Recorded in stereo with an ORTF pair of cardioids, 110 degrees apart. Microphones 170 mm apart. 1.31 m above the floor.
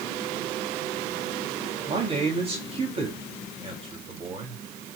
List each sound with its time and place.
1.9 s a man speaking: 35° right, 3.5 m